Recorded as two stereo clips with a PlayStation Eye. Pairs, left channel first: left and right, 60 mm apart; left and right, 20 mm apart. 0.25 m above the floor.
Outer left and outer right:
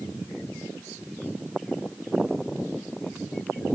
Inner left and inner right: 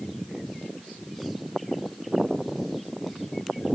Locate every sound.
Only background noise.